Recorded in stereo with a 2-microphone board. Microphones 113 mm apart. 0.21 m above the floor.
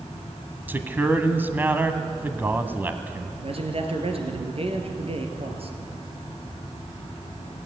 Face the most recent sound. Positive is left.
turn(degrees=-55)  # may be behind; listen again after turning